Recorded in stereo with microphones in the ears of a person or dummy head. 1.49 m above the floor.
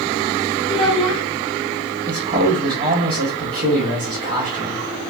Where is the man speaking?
35° right (ahead or behind), 0.6 m.